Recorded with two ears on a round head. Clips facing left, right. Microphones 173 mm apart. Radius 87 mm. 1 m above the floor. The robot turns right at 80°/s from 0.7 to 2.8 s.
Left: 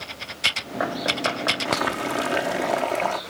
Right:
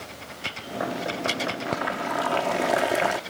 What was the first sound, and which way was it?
Boiling, 100° left.